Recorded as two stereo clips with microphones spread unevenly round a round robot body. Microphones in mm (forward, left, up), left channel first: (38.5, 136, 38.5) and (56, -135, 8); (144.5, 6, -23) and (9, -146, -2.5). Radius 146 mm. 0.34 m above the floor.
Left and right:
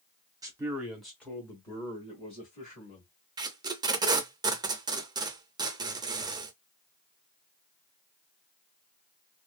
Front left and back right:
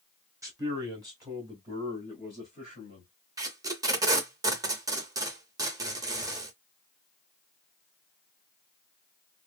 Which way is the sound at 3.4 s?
70° right.